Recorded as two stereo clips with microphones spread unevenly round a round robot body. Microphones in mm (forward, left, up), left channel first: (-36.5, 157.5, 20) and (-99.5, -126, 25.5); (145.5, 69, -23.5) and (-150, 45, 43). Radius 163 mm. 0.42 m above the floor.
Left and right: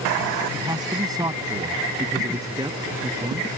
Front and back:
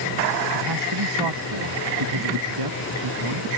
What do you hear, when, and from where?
0.5 s a man speaking: straight behind